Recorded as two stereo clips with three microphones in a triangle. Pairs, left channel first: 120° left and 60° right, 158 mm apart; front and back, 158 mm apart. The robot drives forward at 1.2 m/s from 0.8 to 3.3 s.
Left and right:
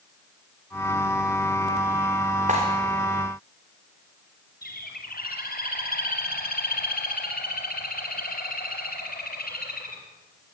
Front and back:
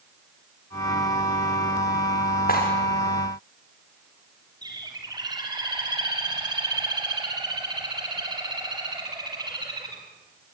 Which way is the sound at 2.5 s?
20° right.